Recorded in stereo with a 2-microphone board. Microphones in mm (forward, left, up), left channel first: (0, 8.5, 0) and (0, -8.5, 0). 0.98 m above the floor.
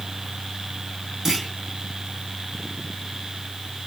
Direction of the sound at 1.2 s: 20° right (ahead or behind).